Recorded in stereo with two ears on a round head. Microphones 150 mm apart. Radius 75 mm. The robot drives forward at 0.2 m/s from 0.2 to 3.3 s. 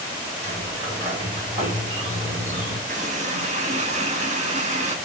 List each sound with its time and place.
0.4 s a sliding door: 45° right (ahead or behind), 4.5 m; by 2.8 s 50° right (ahead or behind), 4 m
2.9 s a running tap: 50° right (ahead or behind), 1.5 m; by 5.0 s 45° right (ahead or behind), 1.6 m